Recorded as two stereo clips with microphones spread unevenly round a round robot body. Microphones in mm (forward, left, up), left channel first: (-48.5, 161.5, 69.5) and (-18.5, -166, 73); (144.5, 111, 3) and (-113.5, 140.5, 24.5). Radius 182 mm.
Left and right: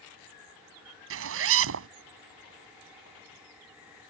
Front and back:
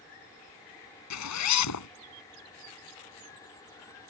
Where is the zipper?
35° right.